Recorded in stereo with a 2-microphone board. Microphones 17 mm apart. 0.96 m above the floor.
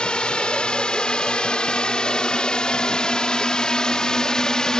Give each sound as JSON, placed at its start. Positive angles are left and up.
{"t": 0.0, "sound": "a drone", "side_deg": 75}